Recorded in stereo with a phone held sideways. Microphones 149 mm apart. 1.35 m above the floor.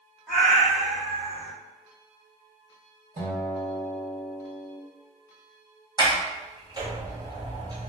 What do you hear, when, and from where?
0.3 s a cat meowing: 10° right (ahead or behind), 1.6 m; by 1.5 s 40° right (ahead or behind), 1.7 m
3.2 s a guitar: 45° right (ahead or behind), 1.7 m
6.0 s a sliding door: 30° right (ahead or behind), 0.9 m